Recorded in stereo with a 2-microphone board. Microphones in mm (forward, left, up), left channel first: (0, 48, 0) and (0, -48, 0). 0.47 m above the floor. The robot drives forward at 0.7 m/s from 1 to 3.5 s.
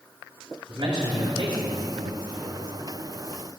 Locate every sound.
0.7 s a man speaking: 60° right (ahead or behind), 2.5 m; by 2.6 s 50° right (ahead or behind), 3 m